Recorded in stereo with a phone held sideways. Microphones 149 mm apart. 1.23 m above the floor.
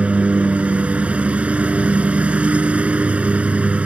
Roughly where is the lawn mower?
Centre.